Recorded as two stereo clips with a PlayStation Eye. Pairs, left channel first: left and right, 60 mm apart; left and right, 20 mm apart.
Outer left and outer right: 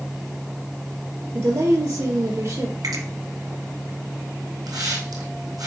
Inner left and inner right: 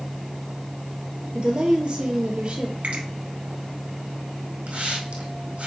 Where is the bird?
No bird in this recording.